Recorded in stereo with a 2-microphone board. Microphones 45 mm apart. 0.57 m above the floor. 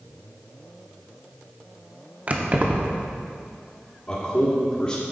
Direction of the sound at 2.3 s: 35° right (ahead or behind).